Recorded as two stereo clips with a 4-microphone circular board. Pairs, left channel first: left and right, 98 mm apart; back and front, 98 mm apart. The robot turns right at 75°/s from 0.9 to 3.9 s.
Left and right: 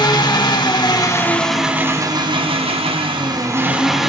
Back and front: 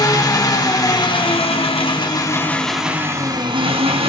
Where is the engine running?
130° left, 1.6 m; by 4.1 s 5° right, 1.6 m.